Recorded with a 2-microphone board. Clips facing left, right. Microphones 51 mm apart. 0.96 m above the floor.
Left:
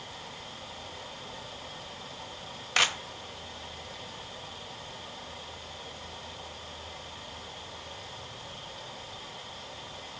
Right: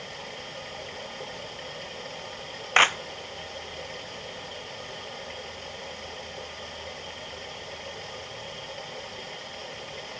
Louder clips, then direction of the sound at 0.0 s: Right 4 dB; 55° right (ahead or behind).